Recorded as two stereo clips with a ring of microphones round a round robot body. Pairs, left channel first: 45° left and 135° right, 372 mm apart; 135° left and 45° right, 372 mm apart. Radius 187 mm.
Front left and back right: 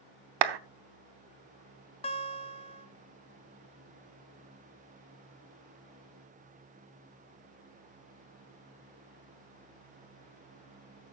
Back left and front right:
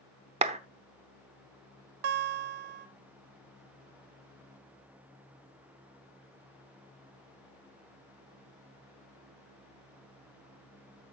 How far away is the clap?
About 0.9 m.